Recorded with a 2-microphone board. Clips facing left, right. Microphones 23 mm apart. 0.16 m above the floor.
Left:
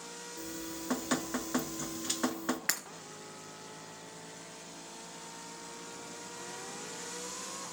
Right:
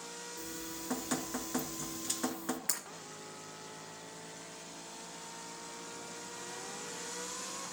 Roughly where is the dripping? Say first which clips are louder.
Left 4 dB; left.